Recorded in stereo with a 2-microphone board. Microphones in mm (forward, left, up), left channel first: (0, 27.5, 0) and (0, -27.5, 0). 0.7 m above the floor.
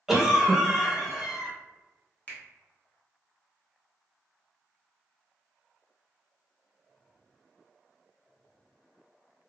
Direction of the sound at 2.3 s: 25° left (ahead or behind).